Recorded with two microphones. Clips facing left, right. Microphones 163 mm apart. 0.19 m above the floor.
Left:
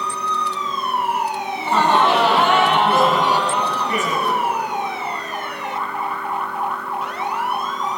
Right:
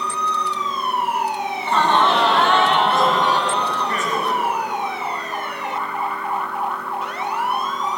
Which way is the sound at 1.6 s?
15° left (ahead or behind).